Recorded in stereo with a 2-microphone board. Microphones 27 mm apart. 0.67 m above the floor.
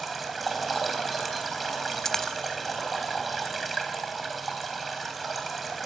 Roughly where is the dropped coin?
Centre.